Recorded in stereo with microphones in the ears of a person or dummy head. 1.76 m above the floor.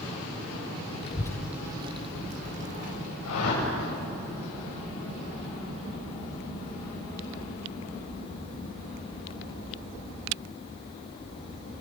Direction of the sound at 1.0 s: 35° left (ahead or behind).